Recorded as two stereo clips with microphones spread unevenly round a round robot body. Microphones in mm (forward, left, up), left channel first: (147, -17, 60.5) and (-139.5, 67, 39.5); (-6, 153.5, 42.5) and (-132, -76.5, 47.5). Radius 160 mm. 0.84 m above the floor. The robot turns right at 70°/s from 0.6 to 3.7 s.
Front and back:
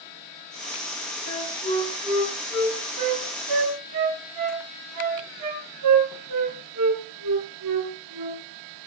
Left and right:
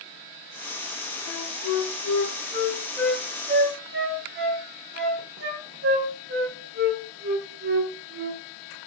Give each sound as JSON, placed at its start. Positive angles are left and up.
{"t": 1.3, "sound": "a flute", "azimuth_deg": 30, "distance_m": 6.0}